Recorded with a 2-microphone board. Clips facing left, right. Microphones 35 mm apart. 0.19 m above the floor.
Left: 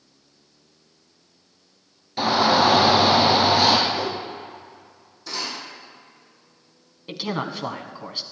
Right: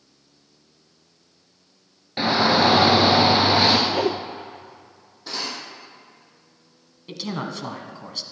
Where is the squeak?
I don't hear a squeak.